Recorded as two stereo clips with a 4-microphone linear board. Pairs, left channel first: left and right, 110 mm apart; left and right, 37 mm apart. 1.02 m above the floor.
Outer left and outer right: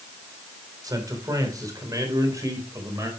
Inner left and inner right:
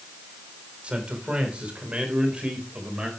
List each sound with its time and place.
0.8 s a man speaking: 35° right (ahead or behind), 3.5 m; by 3.1 s 30° right (ahead or behind), 5 m